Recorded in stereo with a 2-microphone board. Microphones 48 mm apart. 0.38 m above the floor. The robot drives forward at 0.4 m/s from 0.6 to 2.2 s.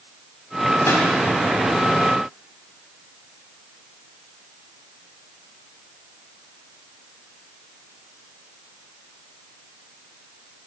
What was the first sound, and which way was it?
A pop, 70° left (ahead or behind).